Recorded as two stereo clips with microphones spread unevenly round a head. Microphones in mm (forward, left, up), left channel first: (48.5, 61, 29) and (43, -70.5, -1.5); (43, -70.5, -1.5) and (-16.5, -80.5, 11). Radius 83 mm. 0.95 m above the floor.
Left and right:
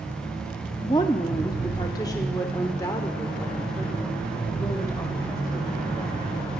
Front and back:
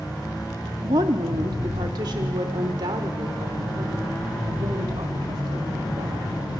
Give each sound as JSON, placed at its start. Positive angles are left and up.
{"t": 0.8, "sound": "a woman speaking", "azimuth_deg": 155, "distance_m": 2.0}